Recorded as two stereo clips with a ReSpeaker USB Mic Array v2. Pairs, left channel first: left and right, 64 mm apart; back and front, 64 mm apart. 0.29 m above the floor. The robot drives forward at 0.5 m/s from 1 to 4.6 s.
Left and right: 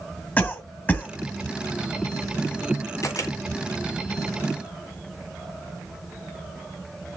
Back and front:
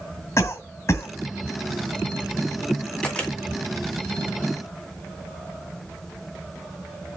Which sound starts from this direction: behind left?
A cough, at 0.4 s.